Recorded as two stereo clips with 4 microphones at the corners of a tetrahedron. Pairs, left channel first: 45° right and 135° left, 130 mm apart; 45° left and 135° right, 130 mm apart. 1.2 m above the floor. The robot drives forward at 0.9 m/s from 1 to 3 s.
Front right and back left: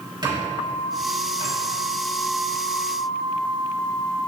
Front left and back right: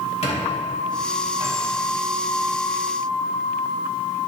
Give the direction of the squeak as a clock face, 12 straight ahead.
9 o'clock.